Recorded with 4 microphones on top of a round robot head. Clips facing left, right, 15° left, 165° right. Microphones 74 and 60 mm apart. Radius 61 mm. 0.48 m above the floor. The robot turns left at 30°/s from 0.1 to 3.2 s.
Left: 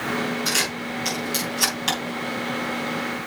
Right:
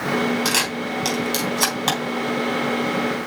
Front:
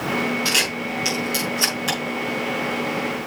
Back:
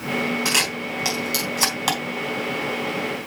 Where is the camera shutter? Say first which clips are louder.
Right 3 dB, front 1 dB; 95° right, 4.5 m; by 2.0 s 145° right, 4.5 m.